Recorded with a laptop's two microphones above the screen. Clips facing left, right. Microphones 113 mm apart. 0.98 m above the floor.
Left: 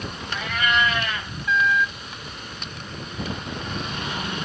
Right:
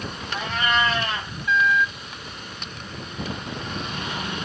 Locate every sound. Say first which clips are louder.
0.3 s a cat meowing: even; 30° right (ahead or behind), 0.6 m